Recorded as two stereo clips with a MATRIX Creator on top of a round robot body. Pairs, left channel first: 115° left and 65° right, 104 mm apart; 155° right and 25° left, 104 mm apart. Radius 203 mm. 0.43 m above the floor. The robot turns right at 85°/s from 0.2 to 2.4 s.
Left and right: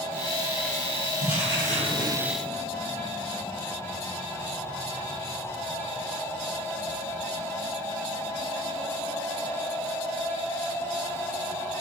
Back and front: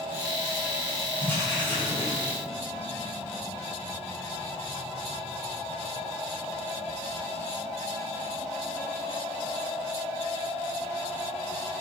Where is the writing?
125° left, 2.5 m; by 2.2 s 150° right, 2.5 m.